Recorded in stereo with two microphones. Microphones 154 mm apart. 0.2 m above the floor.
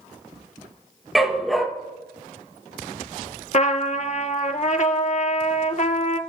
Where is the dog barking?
Centre (ahead or behind), 1.8 m.